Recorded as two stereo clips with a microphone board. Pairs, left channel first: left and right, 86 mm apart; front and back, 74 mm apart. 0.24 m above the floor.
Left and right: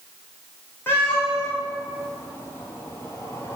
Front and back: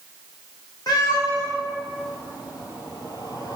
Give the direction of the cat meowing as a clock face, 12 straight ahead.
11 o'clock.